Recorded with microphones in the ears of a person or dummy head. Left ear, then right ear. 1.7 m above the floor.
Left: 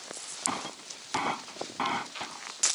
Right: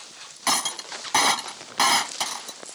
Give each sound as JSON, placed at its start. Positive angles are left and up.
{"t": 0.5, "sound": "breaking glass", "side_deg": -75}